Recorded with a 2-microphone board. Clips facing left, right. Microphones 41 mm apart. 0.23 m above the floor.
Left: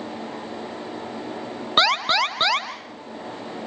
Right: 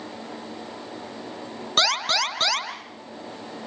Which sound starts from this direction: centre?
An alarm, at 1.8 s.